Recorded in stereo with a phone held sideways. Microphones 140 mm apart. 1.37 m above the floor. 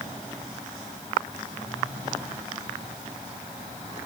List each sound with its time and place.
Only background noise.